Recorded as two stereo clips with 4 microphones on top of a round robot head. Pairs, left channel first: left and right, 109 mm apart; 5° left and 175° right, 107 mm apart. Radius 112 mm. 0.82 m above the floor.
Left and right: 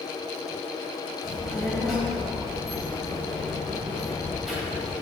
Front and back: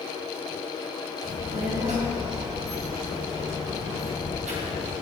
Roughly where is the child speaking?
Behind.